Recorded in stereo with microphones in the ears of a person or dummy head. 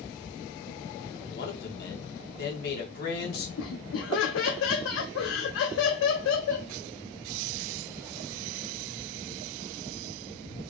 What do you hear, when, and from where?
1.3 s a man speaking: 65° left (ahead or behind), 1.7 m
3.6 s laughter: 80° left, 0.6 m